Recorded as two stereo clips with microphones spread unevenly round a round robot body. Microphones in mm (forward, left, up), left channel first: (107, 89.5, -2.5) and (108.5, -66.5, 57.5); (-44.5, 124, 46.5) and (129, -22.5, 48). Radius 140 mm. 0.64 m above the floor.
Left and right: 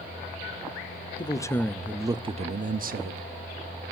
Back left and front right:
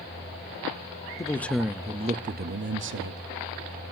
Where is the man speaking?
70° left, 1.1 m; by 3.3 s 60° right, 1.4 m.